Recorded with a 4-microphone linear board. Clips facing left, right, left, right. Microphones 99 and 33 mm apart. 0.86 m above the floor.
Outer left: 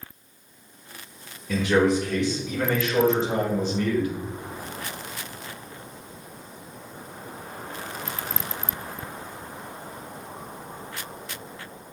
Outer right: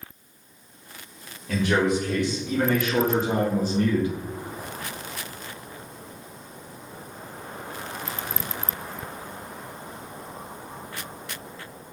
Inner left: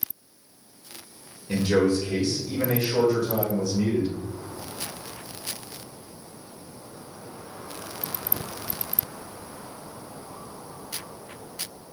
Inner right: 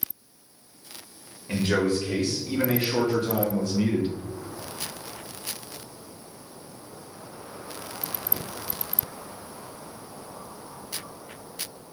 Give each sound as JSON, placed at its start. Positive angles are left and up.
{"t": 1.5, "sound": "a man speaking", "side_deg": -60, "distance_m": 1.8}